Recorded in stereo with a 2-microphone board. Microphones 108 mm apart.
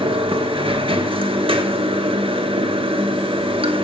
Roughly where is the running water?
Right.